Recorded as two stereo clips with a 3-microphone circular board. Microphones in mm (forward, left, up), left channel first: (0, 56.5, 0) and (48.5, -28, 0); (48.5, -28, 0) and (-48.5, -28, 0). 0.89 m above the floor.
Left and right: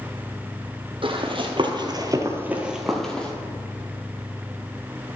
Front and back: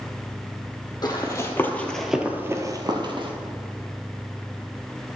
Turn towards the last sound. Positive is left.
turn(degrees=-160)